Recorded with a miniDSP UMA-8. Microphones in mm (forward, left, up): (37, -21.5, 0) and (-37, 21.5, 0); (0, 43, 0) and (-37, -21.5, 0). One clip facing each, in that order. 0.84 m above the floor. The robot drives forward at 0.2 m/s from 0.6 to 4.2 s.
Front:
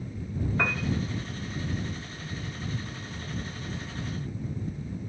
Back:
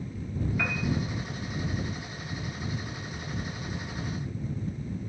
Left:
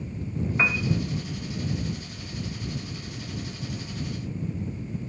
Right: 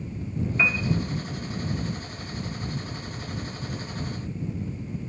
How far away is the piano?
About 0.7 m.